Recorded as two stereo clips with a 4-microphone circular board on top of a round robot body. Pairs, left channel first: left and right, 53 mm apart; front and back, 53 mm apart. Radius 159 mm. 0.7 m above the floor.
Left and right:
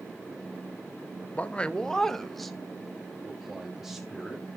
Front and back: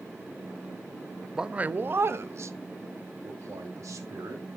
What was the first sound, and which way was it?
A man speaking, 110° left.